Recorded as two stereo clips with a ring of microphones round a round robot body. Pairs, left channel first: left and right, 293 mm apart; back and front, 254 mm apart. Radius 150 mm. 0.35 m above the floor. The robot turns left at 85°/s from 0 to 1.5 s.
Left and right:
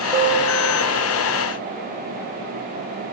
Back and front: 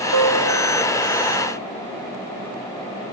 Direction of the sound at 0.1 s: 25° right.